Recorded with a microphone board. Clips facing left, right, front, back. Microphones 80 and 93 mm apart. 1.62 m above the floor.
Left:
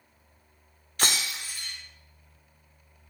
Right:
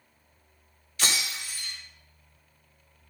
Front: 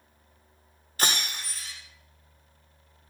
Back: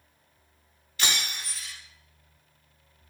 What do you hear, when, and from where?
1.0 s breaking glass: 50° left, 3.5 m